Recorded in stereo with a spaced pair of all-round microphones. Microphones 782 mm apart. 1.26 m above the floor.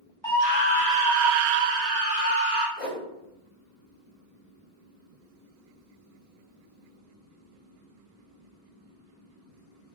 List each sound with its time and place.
0.2 s a scream: 25° right (ahead or behind), 0.9 m; by 2.7 s 40° right (ahead or behind), 1.0 m
2.8 s a whoosh: 20° left (ahead or behind), 1.2 m